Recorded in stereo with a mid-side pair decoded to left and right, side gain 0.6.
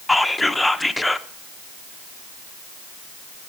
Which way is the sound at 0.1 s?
5° left.